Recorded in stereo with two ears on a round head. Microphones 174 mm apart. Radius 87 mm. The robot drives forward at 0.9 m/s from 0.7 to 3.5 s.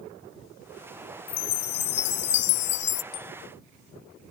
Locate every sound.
1.3 s a chime: 55° left (ahead or behind); by 3.0 s 70° left (ahead or behind)
3.1 s a bicycle bell: 55° left (ahead or behind)